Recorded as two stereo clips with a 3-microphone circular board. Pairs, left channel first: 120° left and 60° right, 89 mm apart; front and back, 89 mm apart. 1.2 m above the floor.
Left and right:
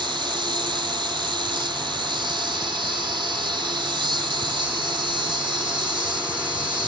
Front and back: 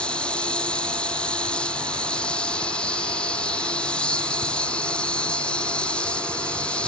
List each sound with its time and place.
0.0 s an insect: 75° right